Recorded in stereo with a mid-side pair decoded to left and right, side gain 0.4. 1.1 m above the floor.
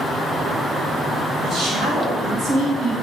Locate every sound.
1.4 s a woman speaking: 55° right, 3.5 m; by 2.9 s 65° right, 2.5 m